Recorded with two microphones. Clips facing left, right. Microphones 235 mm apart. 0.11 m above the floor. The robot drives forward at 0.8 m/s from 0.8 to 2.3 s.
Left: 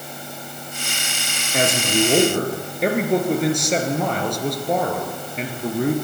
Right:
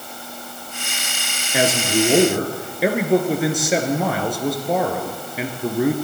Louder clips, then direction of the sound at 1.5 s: Right 1 dB; 5° right (ahead or behind).